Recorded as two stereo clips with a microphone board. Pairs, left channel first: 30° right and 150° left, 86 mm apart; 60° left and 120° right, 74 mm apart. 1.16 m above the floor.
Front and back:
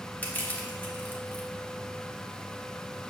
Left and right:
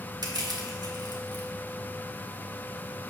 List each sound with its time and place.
0.2 s crushing: 100° right, 1.2 m